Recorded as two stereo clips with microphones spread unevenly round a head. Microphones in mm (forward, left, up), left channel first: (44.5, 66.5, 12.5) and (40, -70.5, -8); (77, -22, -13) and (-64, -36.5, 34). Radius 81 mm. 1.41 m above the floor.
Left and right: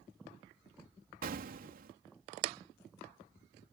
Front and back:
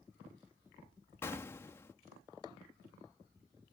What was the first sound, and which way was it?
An explosion, 70° right.